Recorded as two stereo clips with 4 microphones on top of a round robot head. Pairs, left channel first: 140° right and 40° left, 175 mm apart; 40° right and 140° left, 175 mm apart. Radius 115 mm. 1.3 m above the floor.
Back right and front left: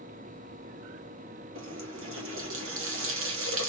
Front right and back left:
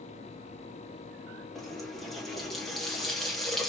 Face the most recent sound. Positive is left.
turn(degrees=45)